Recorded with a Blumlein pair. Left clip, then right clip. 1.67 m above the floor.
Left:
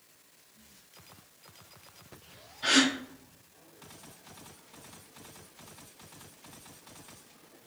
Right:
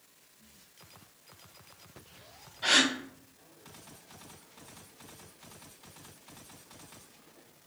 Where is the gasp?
15° right, 1.2 m.